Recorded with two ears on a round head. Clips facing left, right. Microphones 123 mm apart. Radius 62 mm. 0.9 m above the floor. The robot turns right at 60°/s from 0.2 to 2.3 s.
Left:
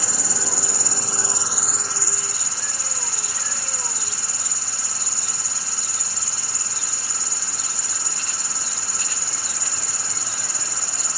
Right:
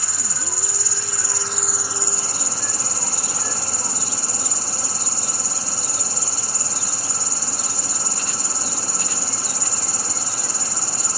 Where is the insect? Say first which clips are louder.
Left 4 dB; 90° left; by 11.2 s 140° right.